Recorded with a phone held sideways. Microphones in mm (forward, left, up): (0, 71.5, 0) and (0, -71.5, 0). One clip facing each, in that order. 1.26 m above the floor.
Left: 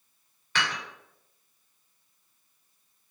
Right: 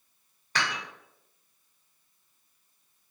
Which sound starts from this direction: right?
Dishes clattering, at 0.6 s.